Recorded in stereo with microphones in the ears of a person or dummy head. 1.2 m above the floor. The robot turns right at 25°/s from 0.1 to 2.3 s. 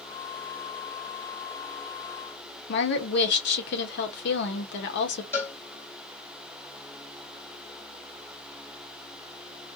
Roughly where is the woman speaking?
Left.